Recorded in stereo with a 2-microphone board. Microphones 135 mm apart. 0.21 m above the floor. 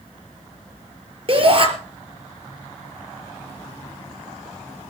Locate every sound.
1.3 s a shout: 40° right (ahead or behind), 4.5 m